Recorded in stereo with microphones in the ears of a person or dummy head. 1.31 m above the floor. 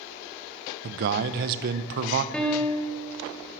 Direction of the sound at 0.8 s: 55° right (ahead or behind).